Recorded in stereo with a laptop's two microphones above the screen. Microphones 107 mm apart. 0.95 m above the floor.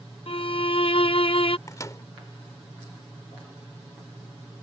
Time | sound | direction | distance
0.3 | a violin | 55° left (ahead or behind) | ?
1.7 | a microwave | 30° left (ahead or behind) | ?